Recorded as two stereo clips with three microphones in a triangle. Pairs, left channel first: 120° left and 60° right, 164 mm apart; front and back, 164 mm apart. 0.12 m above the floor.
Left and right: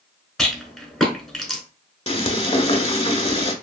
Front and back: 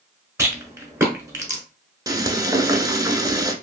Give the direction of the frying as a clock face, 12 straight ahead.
8 o'clock.